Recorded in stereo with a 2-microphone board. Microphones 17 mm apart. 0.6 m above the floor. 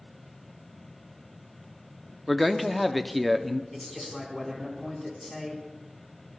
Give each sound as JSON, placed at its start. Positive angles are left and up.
{"t": 2.3, "sound": "a man speaking", "side_deg": 5, "distance_m": 0.8}
{"t": 3.7, "sound": "a man speaking", "side_deg": 15, "distance_m": 4.5}